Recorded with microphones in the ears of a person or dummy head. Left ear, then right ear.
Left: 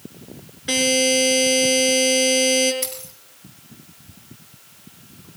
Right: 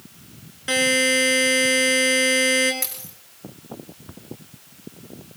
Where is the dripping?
I don't hear dripping.